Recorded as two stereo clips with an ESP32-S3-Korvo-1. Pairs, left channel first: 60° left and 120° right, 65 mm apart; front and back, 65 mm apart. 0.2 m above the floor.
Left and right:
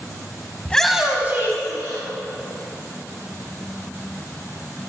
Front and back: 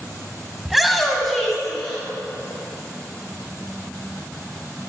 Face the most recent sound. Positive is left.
turn(degrees=-85)